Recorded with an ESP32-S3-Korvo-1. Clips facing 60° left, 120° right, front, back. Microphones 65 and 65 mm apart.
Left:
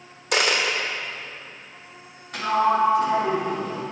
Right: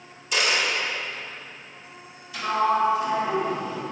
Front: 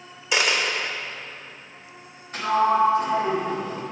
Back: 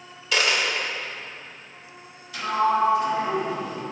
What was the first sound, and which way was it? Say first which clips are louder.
A dropped coin: left 2 dB, even; 70° left.